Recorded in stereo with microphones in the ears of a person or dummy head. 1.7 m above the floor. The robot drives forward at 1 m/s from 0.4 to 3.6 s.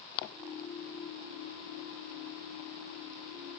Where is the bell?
No bell in this recording.